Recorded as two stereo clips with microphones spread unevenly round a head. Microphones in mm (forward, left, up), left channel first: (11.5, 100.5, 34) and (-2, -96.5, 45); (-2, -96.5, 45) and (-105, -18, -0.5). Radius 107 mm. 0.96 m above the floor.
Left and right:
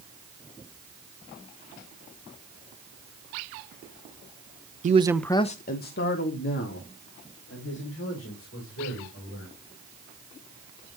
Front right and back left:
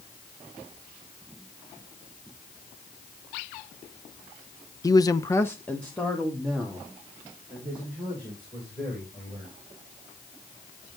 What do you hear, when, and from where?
4.8 s a man speaking: 115° right, 0.7 m; by 9.5 s 60° left, 6 m